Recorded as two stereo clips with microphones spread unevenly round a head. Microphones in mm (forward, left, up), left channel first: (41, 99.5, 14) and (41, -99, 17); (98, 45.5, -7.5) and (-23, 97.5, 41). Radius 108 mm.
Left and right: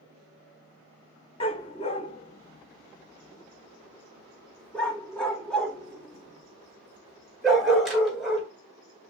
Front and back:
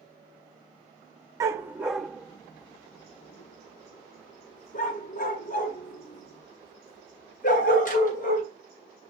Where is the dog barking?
145° left, 0.8 m; by 8.5 s straight ahead, 3.5 m.